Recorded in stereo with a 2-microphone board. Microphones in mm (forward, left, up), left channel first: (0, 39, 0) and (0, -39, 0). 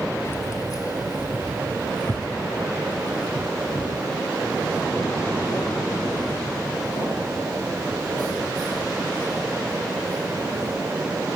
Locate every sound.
0.2 s keys jangling: 30° left (ahead or behind), 0.8 m; by 10.7 s 65° left (ahead or behind), 8 m